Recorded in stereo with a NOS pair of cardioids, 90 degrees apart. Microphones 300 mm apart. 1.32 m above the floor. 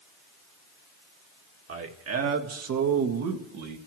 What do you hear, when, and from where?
1.7 s a man speaking: 50° right, 2 m; by 3.8 s 75° right, 2.5 m